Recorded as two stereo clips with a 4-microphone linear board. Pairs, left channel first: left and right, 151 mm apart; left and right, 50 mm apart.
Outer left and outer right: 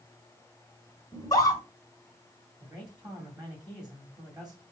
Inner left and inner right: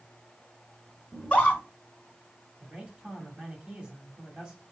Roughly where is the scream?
Left.